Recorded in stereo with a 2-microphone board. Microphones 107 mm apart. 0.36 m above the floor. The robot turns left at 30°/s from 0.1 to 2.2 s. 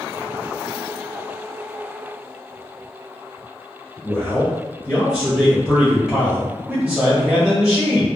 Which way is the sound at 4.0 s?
5° right (ahead or behind).